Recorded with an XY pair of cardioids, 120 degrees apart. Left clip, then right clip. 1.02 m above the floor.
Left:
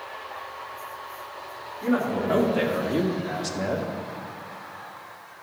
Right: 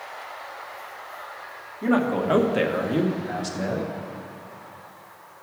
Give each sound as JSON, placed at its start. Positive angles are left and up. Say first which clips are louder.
{"t": 1.8, "sound": "a man speaking", "louder": "right 2 dB", "azimuth_deg": -45, "distance_m": 1.5}